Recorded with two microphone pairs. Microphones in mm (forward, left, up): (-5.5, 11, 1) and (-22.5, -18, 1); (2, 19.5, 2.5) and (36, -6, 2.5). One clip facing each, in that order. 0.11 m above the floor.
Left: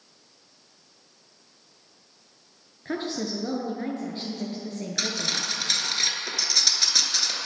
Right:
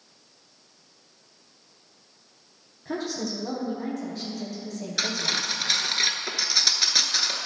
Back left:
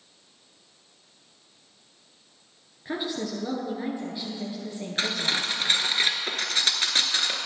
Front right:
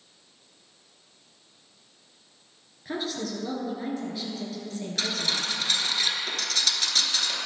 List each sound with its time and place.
2.9 s a woman speaking: 80° left, 1.8 m
5.0 s cutlery clinking: 170° left, 0.8 m